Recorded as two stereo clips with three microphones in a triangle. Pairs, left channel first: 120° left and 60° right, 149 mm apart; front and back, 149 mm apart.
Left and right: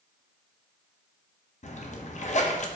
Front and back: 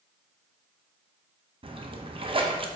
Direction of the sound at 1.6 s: 135° left.